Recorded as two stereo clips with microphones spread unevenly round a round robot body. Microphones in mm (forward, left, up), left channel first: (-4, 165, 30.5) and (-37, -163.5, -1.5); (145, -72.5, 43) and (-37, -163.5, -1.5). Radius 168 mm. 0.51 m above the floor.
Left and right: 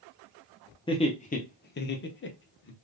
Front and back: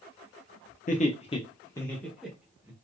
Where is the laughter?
15° left, 0.7 m; by 2.7 s 140° left, 1.1 m.